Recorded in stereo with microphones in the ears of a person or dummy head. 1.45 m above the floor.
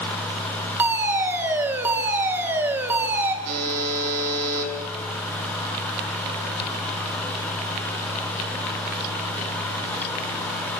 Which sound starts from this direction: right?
A buzzer, at 3.5 s.